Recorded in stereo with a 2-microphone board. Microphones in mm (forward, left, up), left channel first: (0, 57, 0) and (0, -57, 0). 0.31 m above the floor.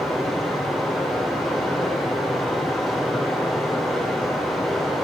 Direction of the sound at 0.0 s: Centre (ahead or behind).